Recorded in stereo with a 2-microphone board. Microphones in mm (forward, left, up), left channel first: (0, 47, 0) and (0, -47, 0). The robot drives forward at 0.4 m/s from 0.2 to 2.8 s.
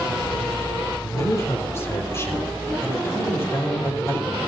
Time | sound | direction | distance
1.0 | a man speaking | 30° left (ahead or behind) | 4.5 m